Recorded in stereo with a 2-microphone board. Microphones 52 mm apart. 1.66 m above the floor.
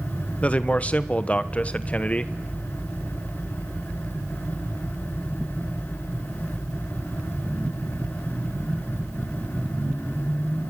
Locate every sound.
0.4 s a man speaking: 25° left (ahead or behind), 1.1 m